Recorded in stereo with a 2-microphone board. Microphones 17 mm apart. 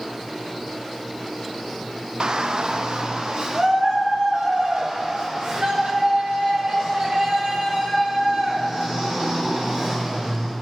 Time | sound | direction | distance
2.2 | a shout | 45° right (ahead or behind) | 0.8 m